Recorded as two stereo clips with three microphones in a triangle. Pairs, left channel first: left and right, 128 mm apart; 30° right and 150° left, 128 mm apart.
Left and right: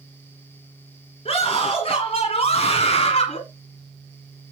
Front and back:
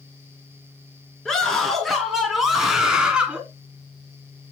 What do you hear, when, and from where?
1.2 s a scream: 55° left, 3 m; by 3.4 s 70° left, 1.9 m